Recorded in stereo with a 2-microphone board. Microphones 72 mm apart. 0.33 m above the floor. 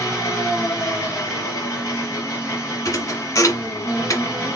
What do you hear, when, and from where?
0.0 s an engine running: 35° left (ahead or behind), 3.5 m
2.9 s a thud: 50° left (ahead or behind), 1.5 m